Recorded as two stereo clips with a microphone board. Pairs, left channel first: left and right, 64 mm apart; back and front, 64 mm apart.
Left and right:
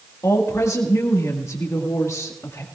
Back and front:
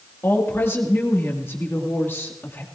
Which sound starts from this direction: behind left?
A woman speaking, at 0.2 s.